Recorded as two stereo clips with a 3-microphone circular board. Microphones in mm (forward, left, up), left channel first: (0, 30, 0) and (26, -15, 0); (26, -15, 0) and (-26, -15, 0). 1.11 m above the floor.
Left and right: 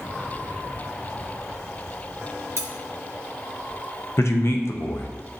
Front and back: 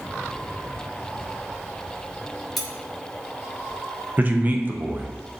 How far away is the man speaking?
About 0.6 m.